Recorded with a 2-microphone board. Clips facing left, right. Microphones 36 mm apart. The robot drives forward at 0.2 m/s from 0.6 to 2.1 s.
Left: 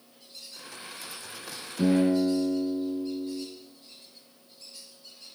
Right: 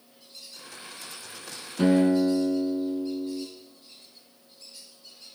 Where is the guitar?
75° right (ahead or behind), 6 m.